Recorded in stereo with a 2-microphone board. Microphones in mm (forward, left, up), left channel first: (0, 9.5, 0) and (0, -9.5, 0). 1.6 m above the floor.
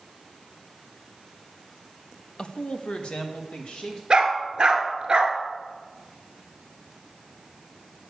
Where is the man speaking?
55° left (ahead or behind), 0.6 m; by 4.0 s 60° left (ahead or behind), 2.5 m.